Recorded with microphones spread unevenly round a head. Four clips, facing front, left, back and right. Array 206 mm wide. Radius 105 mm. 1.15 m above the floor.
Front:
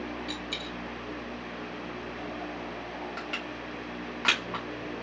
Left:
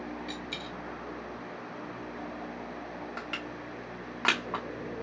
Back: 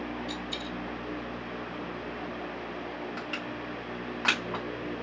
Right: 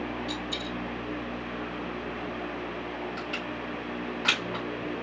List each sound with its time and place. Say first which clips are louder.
0.3 s a dropped coin: right 5 dB, back 1 dB; 5° left, 1.8 m
3.2 s crushing: right 4 dB, back 1 dB; 75° left, 2 m